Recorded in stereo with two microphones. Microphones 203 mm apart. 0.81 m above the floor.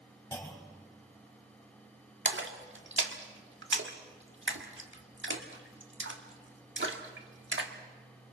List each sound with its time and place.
0.3 s a clunk: 10° left (ahead or behind), 3.5 m
2.2 s a splash: 70° right (ahead or behind), 1.6 m